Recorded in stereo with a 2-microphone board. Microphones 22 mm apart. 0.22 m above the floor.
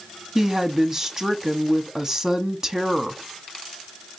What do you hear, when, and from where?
0.3 s a woman speaking: 25° right (ahead or behind), 1.3 m